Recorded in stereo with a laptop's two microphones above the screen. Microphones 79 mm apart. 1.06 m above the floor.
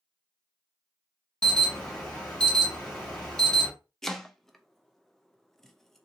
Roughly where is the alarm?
Centre.